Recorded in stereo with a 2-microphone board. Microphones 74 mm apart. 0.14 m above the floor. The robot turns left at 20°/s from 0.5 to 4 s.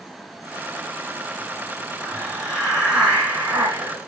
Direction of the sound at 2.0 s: 5° left.